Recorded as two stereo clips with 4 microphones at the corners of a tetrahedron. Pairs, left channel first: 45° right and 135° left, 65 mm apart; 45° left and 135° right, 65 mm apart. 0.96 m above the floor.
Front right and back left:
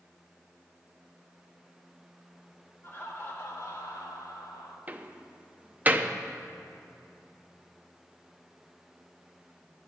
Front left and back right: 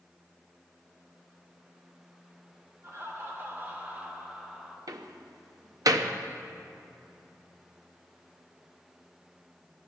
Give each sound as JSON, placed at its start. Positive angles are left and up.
{"t": 2.8, "sound": "laughter", "azimuth_deg": -90, "distance_m": 2.5}
{"t": 4.9, "sound": "a door slam", "azimuth_deg": -160, "distance_m": 0.7}